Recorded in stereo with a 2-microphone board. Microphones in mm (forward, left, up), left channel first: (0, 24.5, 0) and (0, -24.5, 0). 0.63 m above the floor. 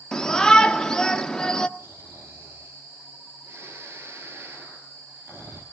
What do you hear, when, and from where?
0.1 s a shout: 15° left (ahead or behind), 1.1 m
1.8 s snoring: 60° right (ahead or behind), 4.5 m